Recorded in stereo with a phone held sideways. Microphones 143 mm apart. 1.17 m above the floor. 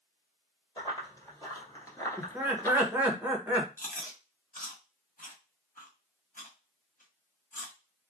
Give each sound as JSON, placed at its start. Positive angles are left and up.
{"t": 0.8, "sound": "running footsteps", "side_deg": 25, "distance_m": 1.9}
{"t": 2.2, "sound": "laughter", "side_deg": -10, "distance_m": 1.0}
{"t": 3.8, "sound": "chewing", "side_deg": 70, "distance_m": 0.9}